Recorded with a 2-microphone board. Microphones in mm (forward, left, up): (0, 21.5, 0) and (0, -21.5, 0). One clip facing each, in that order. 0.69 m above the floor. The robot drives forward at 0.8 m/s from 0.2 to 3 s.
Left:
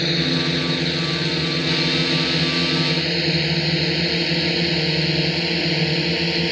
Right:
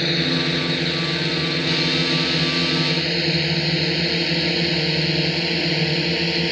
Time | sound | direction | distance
0.0 | a drone | 10° right (ahead or behind) | ?